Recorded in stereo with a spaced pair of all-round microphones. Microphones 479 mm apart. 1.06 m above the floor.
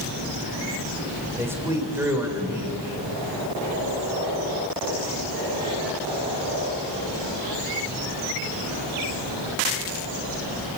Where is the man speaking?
5° right (ahead or behind), 3.5 m.